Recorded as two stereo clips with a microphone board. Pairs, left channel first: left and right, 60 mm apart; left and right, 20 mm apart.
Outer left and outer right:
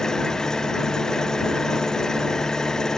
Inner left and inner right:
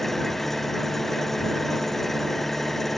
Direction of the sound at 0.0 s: 10° left (ahead or behind).